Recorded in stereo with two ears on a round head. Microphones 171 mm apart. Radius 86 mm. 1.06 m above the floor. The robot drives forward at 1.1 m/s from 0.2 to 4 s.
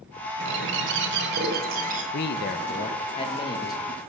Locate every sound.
0.4 s a bird: 65° right (ahead or behind), 1.6 m; by 2.0 s 45° right (ahead or behind), 2 m
2.1 s a man speaking: 55° left (ahead or behind), 0.8 m; by 4.0 s 20° left (ahead or behind), 2 m